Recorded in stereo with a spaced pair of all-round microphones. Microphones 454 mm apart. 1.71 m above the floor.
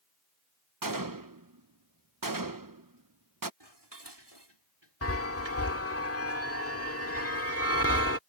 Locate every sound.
0.8 s a gunshot: 45° right (ahead or behind)
3.6 s dishes clattering: 65° right (ahead or behind)
5.0 s a chime: 30° left (ahead or behind)